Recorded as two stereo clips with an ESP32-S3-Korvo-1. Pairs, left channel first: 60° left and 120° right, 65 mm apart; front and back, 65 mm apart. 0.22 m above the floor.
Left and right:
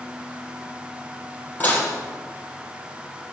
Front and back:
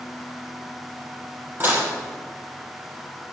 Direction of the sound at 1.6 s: 125° left.